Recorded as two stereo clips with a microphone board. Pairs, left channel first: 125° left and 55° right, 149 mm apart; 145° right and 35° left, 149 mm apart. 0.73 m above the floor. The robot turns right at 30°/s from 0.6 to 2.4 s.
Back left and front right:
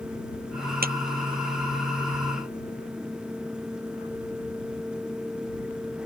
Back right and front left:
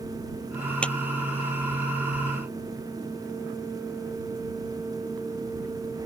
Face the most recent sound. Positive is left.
turn(degrees=-15)